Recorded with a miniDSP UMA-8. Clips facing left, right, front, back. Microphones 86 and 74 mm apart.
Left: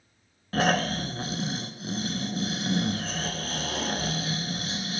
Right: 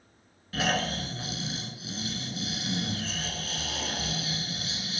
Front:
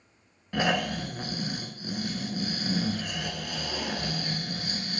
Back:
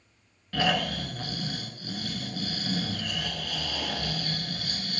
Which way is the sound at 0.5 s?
65° left.